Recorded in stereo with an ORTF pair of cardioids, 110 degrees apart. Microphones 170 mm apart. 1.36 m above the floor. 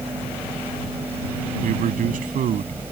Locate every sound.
0.0 s a fan: 10° right
1.6 s a man speaking: 50° right